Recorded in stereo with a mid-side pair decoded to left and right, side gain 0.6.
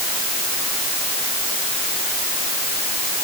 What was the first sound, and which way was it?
Only background noise.